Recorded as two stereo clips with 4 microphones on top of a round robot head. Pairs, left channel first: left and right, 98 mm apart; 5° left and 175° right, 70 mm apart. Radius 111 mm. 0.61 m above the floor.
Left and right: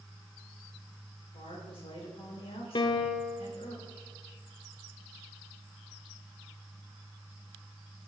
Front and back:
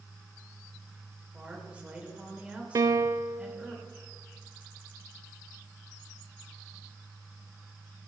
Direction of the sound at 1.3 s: 110° left.